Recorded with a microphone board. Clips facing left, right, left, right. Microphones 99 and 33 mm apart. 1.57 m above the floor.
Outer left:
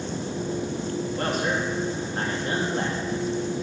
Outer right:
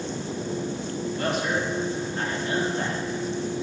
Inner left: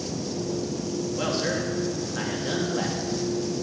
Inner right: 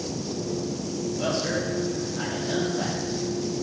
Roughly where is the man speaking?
Left.